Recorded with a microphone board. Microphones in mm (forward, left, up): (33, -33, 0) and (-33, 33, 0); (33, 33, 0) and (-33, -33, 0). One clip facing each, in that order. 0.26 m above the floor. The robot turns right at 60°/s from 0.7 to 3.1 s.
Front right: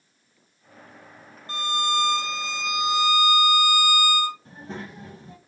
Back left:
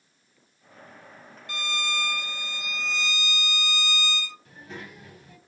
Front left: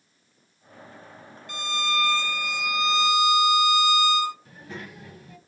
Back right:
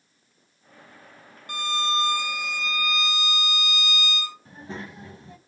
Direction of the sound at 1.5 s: 100° right.